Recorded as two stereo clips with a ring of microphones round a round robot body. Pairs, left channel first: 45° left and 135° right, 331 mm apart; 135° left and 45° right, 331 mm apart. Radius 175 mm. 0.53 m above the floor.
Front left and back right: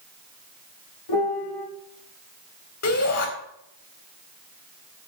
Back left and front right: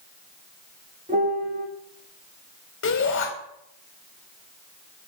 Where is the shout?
85° left, 4 m.